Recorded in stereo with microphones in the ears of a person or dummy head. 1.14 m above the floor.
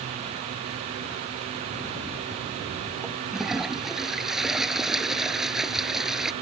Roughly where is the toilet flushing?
Centre.